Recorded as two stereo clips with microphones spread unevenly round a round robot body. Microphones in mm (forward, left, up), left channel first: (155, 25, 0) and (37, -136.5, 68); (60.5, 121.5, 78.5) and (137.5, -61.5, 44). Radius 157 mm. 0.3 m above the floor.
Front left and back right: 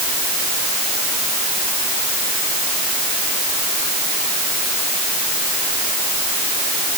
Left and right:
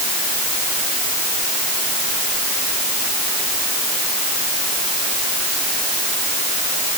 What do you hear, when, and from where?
Only background noise.